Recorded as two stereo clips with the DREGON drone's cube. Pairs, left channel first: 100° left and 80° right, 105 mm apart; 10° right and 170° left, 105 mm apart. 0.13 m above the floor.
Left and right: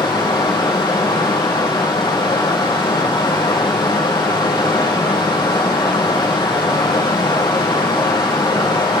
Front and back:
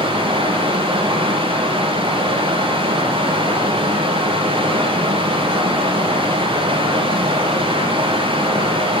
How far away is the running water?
About 3 m.